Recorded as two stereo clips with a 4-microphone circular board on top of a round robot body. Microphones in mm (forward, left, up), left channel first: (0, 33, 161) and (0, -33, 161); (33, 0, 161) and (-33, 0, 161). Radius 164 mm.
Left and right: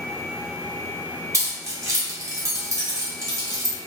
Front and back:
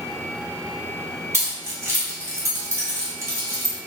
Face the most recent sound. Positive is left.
turn(degrees=-135)